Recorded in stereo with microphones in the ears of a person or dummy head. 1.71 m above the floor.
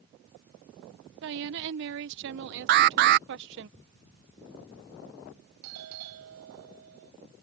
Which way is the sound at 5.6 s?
85° right.